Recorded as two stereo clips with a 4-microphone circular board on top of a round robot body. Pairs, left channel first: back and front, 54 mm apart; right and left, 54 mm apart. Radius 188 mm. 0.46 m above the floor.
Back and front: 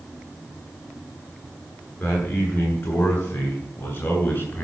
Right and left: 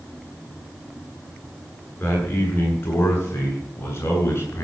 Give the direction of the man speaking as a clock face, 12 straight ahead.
5 o'clock.